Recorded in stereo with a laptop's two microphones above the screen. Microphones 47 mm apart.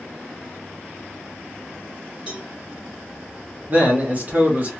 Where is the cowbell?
20° right (ahead or behind), 1.9 m.